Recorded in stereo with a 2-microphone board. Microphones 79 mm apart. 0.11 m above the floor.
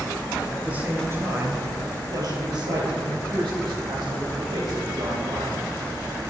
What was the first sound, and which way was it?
A man speaking, 10° right (ahead or behind).